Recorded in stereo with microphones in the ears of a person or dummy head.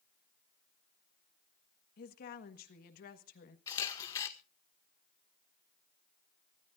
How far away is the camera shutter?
About 1.7 m.